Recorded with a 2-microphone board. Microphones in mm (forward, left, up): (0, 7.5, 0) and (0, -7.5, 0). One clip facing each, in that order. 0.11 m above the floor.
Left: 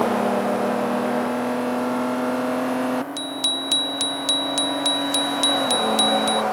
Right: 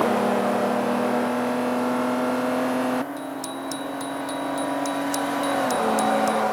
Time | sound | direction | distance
3.2 | a bicycle bell | 65° left (ahead or behind) | ?